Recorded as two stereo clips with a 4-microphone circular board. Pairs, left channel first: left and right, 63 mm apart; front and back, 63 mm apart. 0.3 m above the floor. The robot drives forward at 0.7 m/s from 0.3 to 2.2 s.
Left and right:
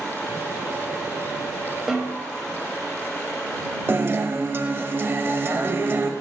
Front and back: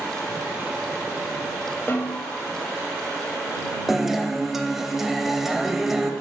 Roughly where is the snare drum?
Ahead.